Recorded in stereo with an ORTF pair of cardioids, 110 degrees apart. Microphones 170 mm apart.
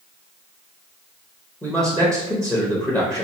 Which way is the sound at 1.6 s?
5° left.